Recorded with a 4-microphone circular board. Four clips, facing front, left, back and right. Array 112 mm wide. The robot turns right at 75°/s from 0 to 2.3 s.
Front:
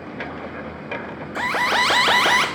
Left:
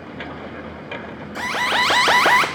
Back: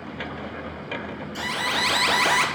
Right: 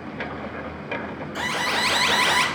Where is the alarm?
Straight ahead, 1.5 m; by 2.5 s 75° left, 1.5 m.